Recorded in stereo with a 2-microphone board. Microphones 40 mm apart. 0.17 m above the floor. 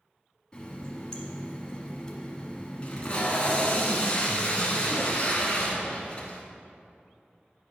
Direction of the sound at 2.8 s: 30° left (ahead or behind).